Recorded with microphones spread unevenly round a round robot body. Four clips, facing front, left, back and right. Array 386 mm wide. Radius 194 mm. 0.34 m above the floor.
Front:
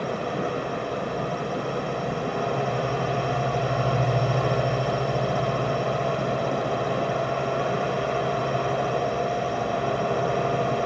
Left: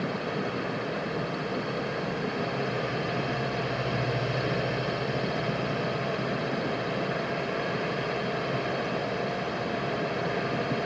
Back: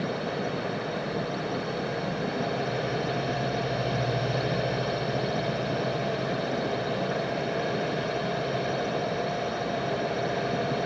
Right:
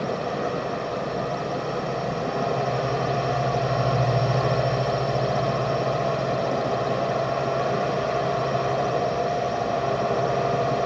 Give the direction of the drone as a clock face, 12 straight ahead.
2 o'clock.